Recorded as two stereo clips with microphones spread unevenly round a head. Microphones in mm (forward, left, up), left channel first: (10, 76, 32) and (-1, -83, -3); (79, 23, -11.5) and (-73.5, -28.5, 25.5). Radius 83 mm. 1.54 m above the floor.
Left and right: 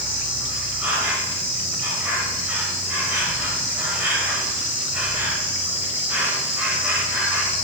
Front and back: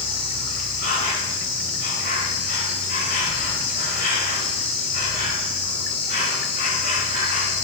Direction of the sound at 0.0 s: 15° right.